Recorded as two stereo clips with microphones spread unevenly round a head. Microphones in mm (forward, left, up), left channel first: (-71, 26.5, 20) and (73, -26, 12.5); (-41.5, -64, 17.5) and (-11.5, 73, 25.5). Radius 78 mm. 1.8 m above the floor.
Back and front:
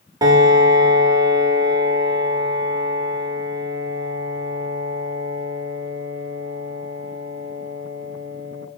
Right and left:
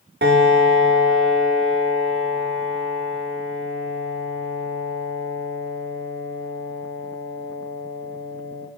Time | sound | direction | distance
0.2 | a piano | 50° left | 0.9 m